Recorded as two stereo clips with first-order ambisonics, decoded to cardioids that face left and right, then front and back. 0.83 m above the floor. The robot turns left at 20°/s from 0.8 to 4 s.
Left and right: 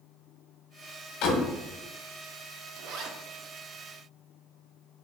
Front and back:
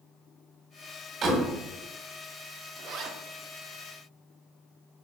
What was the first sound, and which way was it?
A door slam, 120° left.